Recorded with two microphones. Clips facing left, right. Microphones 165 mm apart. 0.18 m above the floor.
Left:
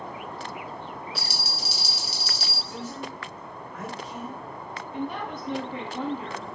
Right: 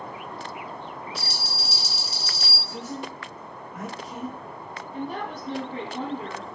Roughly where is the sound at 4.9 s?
Right.